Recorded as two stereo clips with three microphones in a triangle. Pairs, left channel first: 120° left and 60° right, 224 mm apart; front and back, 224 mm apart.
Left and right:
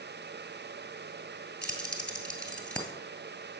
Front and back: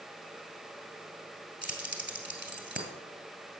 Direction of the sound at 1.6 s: 155° right.